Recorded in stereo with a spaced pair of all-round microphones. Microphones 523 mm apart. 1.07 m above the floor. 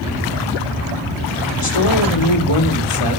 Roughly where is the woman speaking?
Left.